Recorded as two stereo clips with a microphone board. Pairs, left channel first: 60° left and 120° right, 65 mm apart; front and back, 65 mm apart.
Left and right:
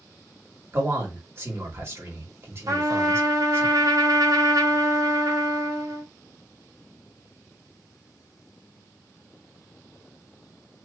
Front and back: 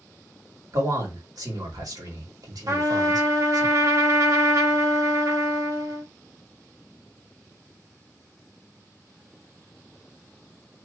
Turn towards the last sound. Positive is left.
turn(degrees=-145)